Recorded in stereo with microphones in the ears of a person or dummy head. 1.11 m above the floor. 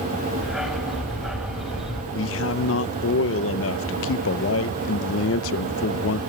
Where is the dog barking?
Centre (ahead or behind), 2 m.